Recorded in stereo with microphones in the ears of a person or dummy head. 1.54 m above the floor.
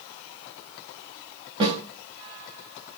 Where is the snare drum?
25° right (ahead or behind), 3 m.